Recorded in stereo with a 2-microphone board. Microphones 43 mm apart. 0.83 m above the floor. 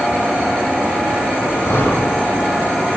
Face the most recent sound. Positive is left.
turn(degrees=70)  # may be behind; listen again after turning